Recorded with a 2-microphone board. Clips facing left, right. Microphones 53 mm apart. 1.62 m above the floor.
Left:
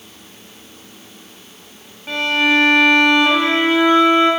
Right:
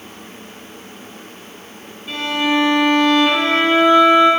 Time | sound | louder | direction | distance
2.1 | a violin | left 3 dB | 60° left (ahead or behind) | 4 m